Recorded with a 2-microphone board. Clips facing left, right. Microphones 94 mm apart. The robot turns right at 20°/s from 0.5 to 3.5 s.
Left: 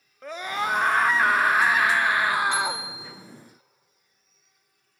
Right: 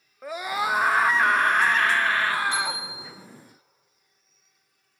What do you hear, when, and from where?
0.2 s a scream: 15° right, 0.7 m; by 2.9 s 35° left, 0.7 m
2.5 s a bicycle bell: 70° left (ahead or behind), 4 m; by 3.1 s 55° left (ahead or behind), 4 m